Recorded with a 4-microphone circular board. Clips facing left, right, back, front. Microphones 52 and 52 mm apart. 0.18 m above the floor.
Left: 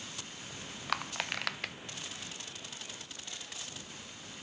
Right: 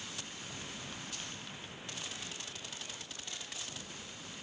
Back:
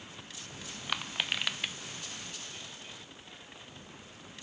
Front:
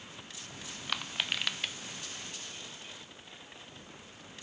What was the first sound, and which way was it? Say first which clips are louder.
Crushing: left 10 dB, back 1 dB; 100° left.